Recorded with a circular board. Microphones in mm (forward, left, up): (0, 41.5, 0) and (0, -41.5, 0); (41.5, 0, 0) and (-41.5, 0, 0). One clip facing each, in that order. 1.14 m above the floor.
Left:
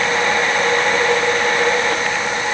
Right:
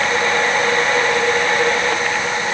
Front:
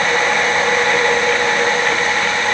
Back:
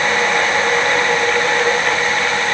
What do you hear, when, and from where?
Only background noise.